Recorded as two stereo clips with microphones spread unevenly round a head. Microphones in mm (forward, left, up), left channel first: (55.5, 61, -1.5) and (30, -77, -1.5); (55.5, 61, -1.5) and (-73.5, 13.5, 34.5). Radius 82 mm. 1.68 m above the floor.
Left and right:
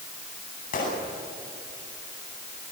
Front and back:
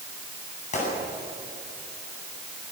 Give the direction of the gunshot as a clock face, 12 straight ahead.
10 o'clock.